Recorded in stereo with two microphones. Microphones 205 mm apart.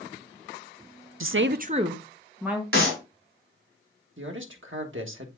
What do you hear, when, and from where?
1.2 s a woman speaking: 80° right, 0.6 m; by 2.6 s 5° right (ahead or behind), 1.8 m
2.7 s a clap: 85° right, 3 m
4.2 s a man speaking: 75° right (ahead or behind), 1.4 m